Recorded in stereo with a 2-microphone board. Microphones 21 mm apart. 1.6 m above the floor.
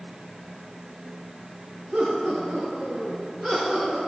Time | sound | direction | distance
1.9 | laughter | 80° right | 3.5 m